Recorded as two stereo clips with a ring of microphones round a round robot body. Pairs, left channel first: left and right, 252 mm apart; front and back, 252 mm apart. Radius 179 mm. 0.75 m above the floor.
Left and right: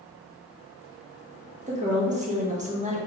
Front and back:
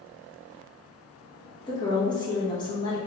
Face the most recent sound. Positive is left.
turn(degrees=-60)